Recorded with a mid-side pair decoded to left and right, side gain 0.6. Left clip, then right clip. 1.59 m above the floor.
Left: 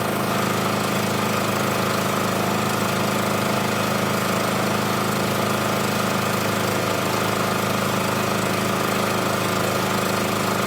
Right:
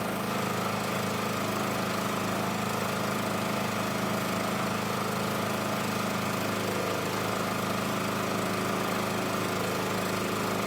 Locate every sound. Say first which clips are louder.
0.0 s an engine running: left 8 dB; 45° left, 1.2 m